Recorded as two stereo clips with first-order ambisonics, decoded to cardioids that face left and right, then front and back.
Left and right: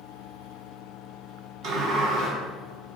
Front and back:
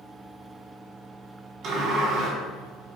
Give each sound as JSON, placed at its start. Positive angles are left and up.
{"t": 1.6, "sound": "a sliding door", "azimuth_deg": -125, "distance_m": 2.0}